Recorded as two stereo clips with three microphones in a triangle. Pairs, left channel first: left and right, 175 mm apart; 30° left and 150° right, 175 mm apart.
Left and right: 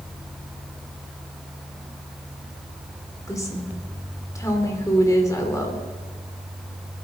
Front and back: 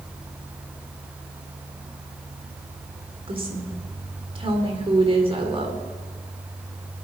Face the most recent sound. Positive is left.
turn(degrees=160)